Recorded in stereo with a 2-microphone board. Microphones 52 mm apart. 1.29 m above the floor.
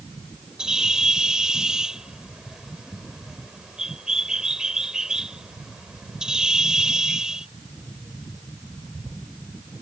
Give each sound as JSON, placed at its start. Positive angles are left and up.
{"t": 0.6, "sound": "a bird", "side_deg": -15}